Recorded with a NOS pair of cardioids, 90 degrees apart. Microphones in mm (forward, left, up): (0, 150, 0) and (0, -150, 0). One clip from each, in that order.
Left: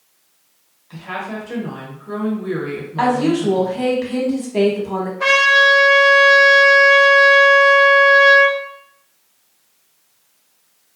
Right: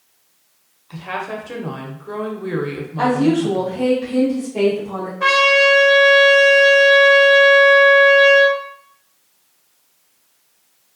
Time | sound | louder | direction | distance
0.9 | a woman speaking | right 1 dB | 20° right | 0.8 m
3.0 | a woman speaking | even | 65° left | 1.3 m
5.2 | a trumpet | left 1 dB | 25° left | 0.9 m